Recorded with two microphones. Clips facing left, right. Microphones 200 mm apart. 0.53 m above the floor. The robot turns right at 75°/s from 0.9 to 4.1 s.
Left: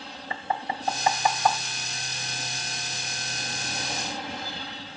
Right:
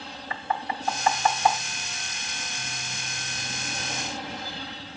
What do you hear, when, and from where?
0.3 s knocking: 25° left (ahead or behind), 0.6 m; by 1.6 s 10° right (ahead or behind), 0.6 m